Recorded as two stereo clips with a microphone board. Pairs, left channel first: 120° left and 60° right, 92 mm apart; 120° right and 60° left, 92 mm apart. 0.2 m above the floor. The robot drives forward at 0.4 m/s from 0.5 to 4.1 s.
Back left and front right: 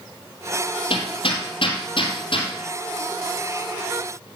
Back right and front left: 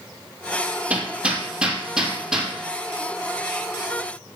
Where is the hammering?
135° left, 3 m; by 2.5 s 145° left, 3.5 m.